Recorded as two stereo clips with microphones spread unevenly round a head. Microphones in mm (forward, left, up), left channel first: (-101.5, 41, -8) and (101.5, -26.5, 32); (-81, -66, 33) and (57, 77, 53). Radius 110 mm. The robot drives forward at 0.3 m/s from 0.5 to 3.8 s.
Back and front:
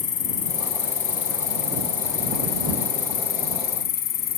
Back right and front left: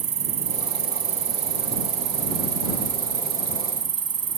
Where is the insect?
105° left; by 4.4 s 110° left.